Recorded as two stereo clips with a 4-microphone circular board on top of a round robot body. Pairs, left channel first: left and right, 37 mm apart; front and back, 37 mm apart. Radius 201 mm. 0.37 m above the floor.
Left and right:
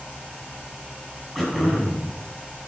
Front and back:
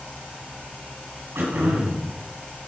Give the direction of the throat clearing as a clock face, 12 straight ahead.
6 o'clock.